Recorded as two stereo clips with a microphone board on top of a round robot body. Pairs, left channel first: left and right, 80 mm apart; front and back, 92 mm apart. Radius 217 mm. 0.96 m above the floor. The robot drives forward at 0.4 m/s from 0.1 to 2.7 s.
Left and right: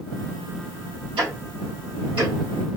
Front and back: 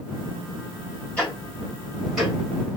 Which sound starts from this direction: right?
Ticking, at 1.2 s.